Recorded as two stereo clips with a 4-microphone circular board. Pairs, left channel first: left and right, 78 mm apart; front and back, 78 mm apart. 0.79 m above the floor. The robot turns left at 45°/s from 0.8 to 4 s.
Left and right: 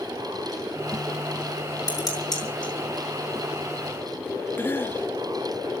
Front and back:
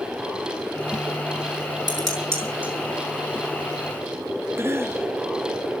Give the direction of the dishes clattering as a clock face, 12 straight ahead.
7 o'clock.